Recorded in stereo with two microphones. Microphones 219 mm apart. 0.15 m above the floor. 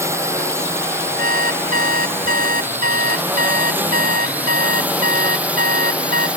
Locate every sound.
0.0 s a drone: 10° right (ahead or behind); by 6.4 s 5° right (ahead or behind)
1.2 s an alarm clock: 85° left